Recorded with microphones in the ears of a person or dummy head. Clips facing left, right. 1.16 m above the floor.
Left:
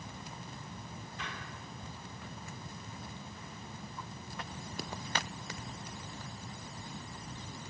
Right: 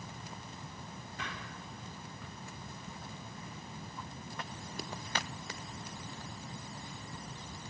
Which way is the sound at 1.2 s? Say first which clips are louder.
Right 2 dB; 45° right (ahead or behind).